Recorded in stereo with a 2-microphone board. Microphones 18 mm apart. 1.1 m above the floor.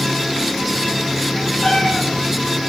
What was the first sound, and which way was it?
A cat meowing, 70° left (ahead or behind).